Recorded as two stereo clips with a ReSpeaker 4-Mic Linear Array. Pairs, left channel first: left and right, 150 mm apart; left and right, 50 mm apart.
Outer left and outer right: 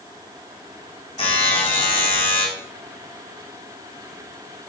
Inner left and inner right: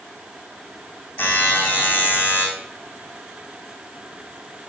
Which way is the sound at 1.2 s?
35° left (ahead or behind).